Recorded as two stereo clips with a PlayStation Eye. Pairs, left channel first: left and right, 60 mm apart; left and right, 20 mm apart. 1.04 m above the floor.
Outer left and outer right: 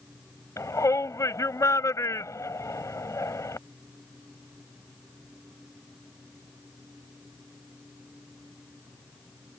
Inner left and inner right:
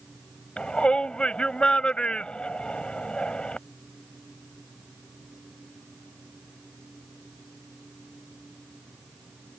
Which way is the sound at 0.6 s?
55° left (ahead or behind).